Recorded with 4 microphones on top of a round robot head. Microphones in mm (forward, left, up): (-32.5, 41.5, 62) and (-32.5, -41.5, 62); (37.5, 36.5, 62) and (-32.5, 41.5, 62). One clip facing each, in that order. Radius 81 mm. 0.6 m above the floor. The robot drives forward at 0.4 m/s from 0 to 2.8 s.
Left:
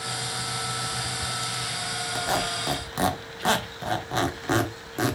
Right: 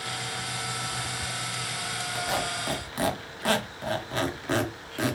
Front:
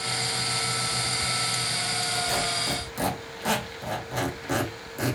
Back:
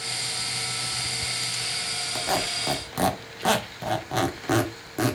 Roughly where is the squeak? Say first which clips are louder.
Left 3 dB, back 3 dB; behind left.